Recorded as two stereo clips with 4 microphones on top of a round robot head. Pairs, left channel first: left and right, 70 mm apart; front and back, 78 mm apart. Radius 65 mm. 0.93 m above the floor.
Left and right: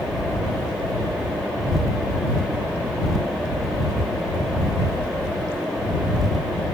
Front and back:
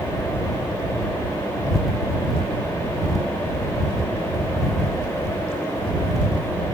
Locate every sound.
Only background noise.